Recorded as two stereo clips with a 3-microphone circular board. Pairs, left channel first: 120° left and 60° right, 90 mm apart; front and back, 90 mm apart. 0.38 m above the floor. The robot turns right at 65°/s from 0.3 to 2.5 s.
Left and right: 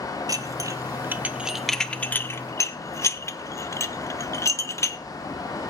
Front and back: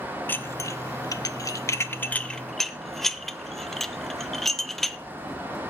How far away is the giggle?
No giggle in this recording.